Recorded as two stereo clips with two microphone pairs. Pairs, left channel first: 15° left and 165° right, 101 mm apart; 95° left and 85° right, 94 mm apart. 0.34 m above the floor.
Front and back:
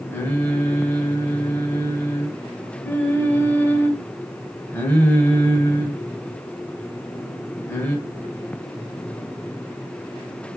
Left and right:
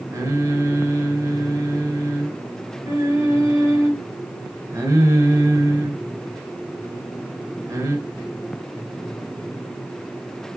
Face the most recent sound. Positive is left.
turn(degrees=-45)